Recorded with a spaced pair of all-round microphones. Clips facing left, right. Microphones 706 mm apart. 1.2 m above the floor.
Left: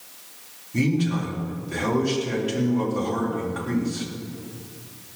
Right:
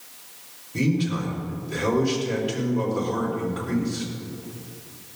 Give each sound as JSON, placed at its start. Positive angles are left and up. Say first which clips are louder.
{"t": 0.7, "sound": "a man speaking", "louder": "left 1 dB", "side_deg": 70, "distance_m": 3.5}